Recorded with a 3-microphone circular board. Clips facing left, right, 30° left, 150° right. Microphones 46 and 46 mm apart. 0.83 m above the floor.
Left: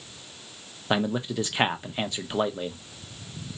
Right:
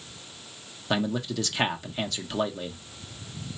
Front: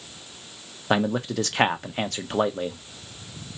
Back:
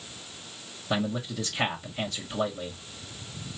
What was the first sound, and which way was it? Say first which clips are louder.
A man speaking: left 2 dB, front 6 dB; 25° left.